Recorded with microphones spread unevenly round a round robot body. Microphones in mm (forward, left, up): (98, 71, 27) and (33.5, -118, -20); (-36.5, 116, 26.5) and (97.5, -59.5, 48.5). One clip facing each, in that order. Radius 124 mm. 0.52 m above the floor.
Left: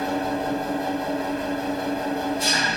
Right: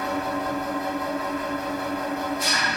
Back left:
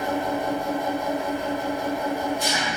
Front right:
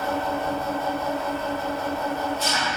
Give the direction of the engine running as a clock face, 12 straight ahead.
8 o'clock.